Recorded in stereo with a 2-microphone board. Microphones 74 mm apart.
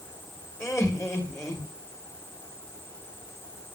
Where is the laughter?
40° left (ahead or behind), 2.5 m.